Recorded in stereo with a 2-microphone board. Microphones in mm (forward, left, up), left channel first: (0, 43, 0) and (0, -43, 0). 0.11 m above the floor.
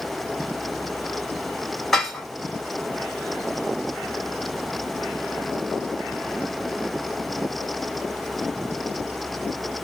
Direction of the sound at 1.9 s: Centre (ahead or behind).